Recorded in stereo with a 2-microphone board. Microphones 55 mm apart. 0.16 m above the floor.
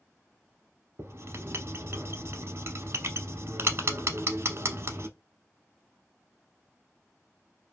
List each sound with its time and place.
1.0 s writing: 50° right (ahead or behind), 0.8 m